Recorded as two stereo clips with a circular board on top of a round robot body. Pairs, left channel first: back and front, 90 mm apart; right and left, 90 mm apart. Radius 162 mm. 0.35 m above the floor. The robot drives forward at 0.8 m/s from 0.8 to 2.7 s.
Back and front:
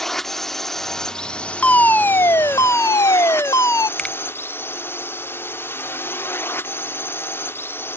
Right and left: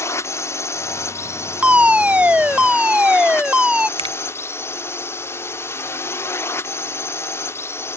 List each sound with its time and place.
0.0 s a drone: 95° right; by 8.0 s 130° right
1.6 s a fire alarm: 135° left; by 3.9 s 160° left
4.0 s a finger snap: 100° left